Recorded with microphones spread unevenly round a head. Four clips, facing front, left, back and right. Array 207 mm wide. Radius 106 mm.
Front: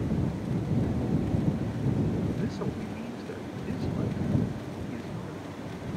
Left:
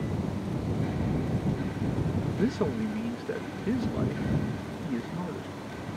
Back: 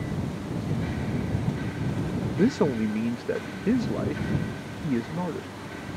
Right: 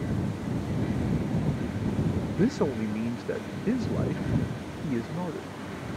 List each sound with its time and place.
2.3 s a man speaking: straight behind